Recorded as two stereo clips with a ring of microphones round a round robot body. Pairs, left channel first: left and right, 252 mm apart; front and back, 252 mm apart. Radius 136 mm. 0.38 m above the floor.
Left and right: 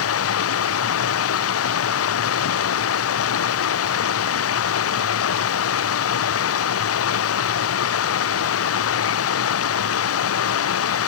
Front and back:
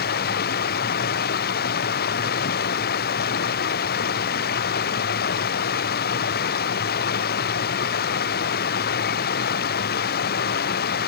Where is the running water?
60° left.